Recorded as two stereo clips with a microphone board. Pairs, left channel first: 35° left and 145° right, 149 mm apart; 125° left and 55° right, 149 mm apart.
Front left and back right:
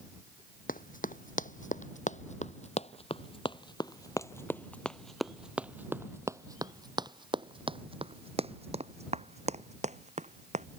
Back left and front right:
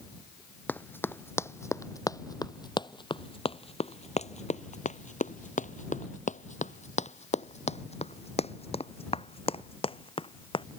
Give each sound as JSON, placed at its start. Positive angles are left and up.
{"t": 0.7, "sound": "running footsteps", "azimuth_deg": 50}